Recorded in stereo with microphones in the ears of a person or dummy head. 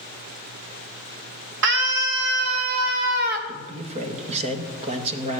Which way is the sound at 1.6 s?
65° right (ahead or behind).